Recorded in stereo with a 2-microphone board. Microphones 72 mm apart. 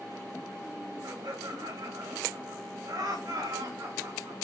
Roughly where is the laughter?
Right.